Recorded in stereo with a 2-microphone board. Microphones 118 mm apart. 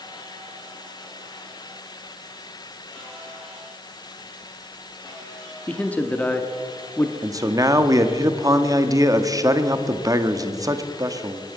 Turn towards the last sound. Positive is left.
turn(degrees=-30)  # may be behind; listen again after turning